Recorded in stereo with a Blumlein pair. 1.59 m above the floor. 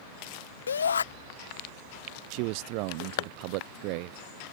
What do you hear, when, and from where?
0.7 s a shout: 70° left
2.3 s a man speaking: 45° right